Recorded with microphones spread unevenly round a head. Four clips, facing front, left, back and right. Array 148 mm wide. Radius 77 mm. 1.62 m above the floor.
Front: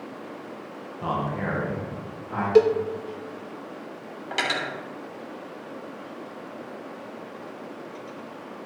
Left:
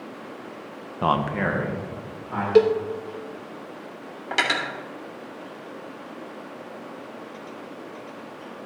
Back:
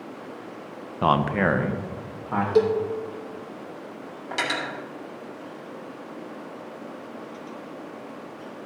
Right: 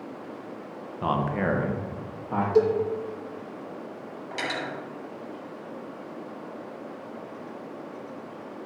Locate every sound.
1.0 s a man speaking: 150° left, 0.9 m; by 2.5 s 145° right, 2.0 m
2.5 s a cowbell: 70° left, 0.9 m
4.3 s cutlery clinking: 90° left, 3 m